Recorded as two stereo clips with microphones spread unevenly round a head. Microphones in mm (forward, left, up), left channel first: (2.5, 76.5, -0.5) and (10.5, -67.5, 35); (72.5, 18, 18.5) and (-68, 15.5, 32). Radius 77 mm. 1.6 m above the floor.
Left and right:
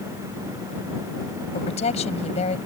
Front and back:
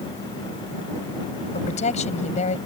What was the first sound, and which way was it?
A woman speaking, 45° left.